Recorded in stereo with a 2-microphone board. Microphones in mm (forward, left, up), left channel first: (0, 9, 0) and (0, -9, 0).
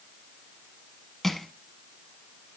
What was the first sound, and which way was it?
Crushing, 5° left (ahead or behind).